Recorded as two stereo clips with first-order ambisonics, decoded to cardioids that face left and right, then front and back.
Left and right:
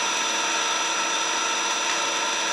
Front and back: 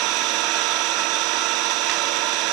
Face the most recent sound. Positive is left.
turn(degrees=180)